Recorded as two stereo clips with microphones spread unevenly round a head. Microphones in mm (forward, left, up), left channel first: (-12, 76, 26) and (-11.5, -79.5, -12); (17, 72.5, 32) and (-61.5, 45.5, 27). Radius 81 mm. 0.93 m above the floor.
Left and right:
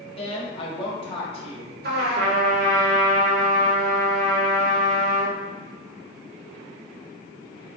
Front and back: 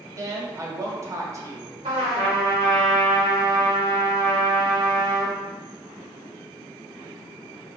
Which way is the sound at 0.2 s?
150° left.